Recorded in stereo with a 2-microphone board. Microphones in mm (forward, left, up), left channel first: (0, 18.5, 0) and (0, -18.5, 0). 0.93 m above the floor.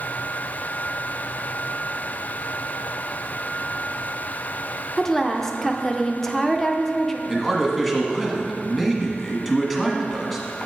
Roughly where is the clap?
I don't hear a clap.